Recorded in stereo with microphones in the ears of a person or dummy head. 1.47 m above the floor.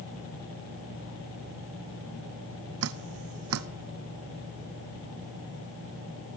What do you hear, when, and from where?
2.8 s dripping: 75° right (ahead or behind), 0.7 m